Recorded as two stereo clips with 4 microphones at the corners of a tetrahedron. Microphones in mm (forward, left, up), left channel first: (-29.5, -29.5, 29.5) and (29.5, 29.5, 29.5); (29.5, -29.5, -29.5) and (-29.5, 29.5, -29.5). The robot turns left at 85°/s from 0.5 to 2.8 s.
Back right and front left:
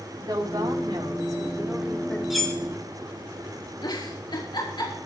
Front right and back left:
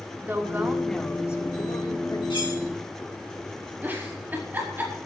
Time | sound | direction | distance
0.2 | a woman speaking | 75° left | 3.5 m
2.3 | cutlery clinking | 40° right | 3.5 m
3.8 | a giggle | 160° right | 5 m